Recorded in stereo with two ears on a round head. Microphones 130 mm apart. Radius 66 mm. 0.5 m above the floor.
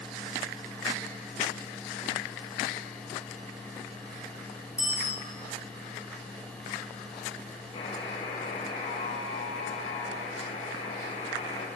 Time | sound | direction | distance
4.8 | a bicycle bell | 10° right (ahead or behind) | 8 m
7.7 | a buzzer | 35° left (ahead or behind) | 2.5 m